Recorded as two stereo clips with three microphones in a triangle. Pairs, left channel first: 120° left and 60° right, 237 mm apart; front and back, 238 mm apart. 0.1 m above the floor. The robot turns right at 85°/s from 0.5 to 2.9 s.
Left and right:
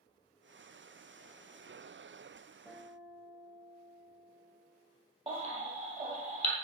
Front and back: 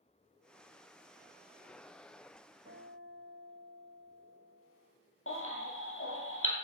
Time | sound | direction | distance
2.6 | a guitar | 150° right | 3 m
5.3 | a baby crying | straight ahead | 2.0 m